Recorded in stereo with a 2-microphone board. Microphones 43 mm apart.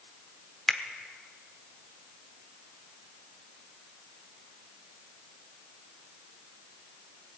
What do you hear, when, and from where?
0.7 s a finger snap: 5° left (ahead or behind), 0.9 m